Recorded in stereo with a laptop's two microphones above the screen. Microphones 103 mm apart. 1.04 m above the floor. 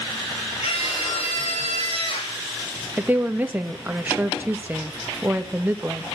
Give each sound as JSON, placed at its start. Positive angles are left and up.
{"t": 0.6, "sound": "a scream", "side_deg": 70, "distance_m": 4.0}
{"t": 3.0, "sound": "a woman speaking", "side_deg": -20, "distance_m": 1.5}